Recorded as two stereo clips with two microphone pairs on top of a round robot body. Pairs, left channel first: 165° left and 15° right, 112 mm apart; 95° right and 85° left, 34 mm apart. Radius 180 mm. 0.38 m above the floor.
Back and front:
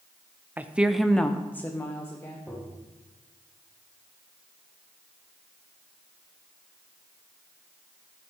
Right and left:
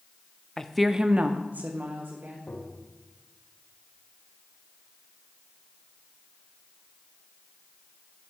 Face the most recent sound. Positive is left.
turn(degrees=-100)